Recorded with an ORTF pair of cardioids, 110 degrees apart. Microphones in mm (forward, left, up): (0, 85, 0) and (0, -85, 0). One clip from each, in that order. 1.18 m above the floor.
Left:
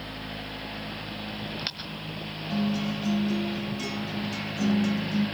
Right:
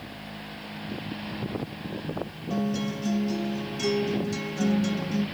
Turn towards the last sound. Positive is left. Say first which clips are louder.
# even
turn(degrees=-25)